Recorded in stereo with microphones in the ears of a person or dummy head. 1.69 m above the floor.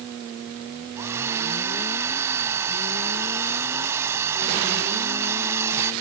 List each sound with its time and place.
1.0 s a hair dryer: 10° right (ahead or behind)